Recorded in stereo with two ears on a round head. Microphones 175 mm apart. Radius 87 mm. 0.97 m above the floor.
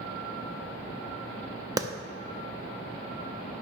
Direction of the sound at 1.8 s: 20° right (ahead or behind).